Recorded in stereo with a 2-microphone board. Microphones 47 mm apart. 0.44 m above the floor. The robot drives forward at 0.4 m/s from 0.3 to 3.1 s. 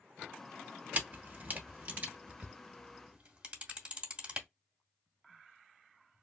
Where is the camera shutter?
35° right (ahead or behind), 0.8 m; by 4.5 s 25° right (ahead or behind), 1.1 m.